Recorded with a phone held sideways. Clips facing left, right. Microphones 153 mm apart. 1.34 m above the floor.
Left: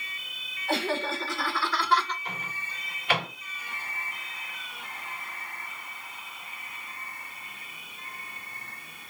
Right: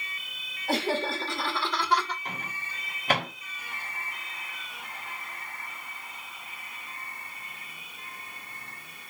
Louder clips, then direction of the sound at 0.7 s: Right 1 dB; 40° right (ahead or behind).